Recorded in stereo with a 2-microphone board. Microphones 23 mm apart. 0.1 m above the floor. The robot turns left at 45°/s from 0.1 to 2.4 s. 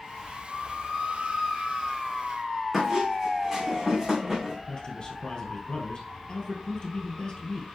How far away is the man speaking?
About 2.5 m.